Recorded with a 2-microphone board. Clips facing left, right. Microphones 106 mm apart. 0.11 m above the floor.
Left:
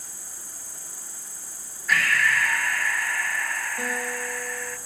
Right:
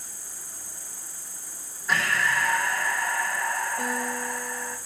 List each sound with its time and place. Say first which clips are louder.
0.0 s an insect: even; 65° left (ahead or behind), 4.5 m
1.9 s breathing: left 2 dB; 25° right (ahead or behind), 1.5 m
3.8 s a guitar: right 1 dB; 15° left (ahead or behind), 5.5 m